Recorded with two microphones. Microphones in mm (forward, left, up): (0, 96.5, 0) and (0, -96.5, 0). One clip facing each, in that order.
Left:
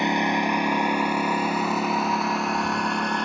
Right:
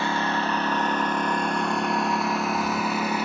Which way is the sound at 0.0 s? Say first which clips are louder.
Left 3 dB; 15° left (ahead or behind).